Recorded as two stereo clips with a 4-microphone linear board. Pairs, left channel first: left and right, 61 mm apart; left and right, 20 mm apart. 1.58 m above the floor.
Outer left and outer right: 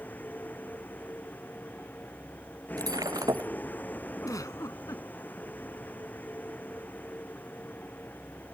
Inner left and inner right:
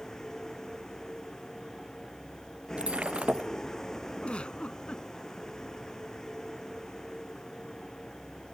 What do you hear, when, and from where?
0.0 s a vehicle: 30° left (ahead or behind)
2.8 s breaking glass: 75° right (ahead or behind)
4.2 s a giggle: 65° left (ahead or behind)